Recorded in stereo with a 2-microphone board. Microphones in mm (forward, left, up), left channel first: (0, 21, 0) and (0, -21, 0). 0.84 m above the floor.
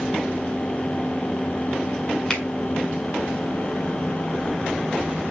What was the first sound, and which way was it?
A finger snap, 15° left (ahead or behind).